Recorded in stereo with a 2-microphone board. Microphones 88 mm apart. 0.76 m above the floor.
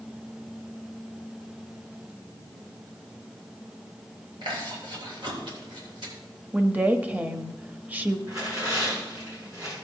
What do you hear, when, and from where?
4.4 s chewing: 70° right (ahead or behind), 3 m
6.5 s a woman speaking: 20° right (ahead or behind), 0.9 m
8.3 s tearing paper: 40° right (ahead or behind), 6 m